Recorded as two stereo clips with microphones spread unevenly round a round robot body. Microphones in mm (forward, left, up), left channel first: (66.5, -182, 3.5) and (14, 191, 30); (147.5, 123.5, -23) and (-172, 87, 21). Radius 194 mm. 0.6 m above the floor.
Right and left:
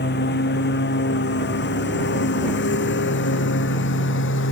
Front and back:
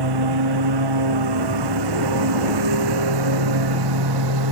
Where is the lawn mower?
150° right; by 4.5 s 145° right.